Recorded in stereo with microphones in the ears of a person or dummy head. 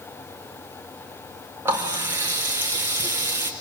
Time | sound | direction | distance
1.6 | a running tap | 15° right (ahead or behind) | 0.7 m